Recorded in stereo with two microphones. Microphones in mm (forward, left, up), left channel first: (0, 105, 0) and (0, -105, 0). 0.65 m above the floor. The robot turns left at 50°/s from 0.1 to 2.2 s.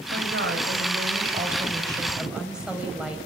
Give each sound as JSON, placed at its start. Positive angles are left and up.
{"t": 0.1, "sound": "a woman speaking", "azimuth_deg": -70, "distance_m": 4.0}